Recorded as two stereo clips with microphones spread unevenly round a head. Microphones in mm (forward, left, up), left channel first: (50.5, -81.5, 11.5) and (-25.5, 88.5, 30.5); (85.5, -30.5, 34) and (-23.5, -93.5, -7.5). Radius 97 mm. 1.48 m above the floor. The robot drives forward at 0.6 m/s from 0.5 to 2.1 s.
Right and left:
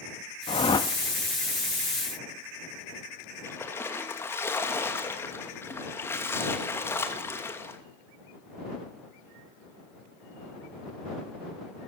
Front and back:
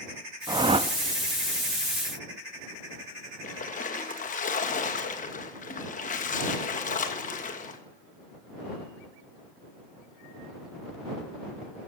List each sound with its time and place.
0.5 s a whoosh: 90° right, 0.8 m; by 0.9 s 130° right, 0.9 m
3.4 s a splash: 10° left, 2.5 m